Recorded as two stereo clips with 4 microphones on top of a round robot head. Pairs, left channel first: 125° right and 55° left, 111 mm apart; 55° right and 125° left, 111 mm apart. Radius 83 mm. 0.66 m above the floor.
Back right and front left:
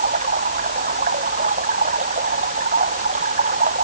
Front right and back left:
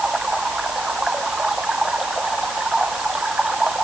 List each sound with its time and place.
0.0 s running water: 40° left